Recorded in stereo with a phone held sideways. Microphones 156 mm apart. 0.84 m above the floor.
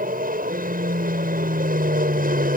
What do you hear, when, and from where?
0.0 s an aircraft: 65° right (ahead or behind)